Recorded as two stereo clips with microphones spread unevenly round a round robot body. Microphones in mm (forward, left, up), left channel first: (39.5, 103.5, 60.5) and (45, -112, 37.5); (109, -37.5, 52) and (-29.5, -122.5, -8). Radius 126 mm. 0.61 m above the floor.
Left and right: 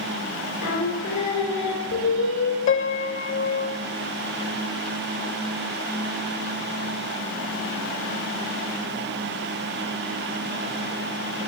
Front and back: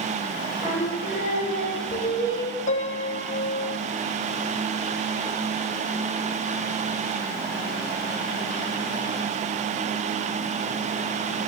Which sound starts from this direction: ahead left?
A piano, at 2.7 s.